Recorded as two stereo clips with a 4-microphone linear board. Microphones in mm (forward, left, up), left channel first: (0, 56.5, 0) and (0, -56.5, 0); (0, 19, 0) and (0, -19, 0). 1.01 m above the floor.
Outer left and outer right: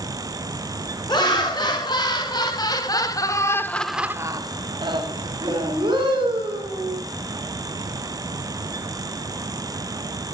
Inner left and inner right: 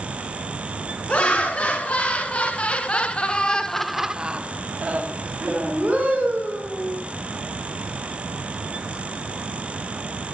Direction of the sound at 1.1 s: 40° left (ahead or behind).